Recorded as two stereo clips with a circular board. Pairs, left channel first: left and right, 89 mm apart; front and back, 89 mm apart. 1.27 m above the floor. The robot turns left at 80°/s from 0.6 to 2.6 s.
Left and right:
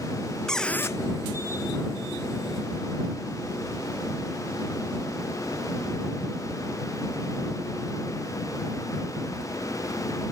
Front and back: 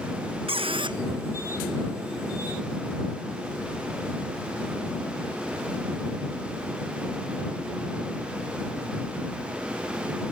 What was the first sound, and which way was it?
A squeak, 175° left.